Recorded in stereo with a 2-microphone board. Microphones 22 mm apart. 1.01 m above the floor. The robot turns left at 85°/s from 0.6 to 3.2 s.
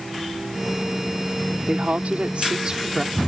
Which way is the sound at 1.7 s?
60° right.